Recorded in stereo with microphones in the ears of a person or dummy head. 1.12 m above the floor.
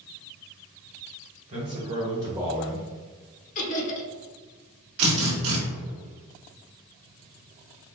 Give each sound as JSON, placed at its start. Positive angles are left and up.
{"t": 1.5, "sound": "a man speaking", "side_deg": -35, "distance_m": 1.9}
{"t": 3.5, "sound": "laughter", "side_deg": 40, "distance_m": 0.9}
{"t": 5.0, "sound": "a drill", "side_deg": -80, "distance_m": 1.5}